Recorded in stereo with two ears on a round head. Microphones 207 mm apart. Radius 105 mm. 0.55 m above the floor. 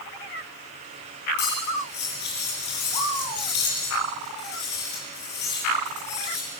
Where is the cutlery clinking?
45° left (ahead or behind), 7.5 m.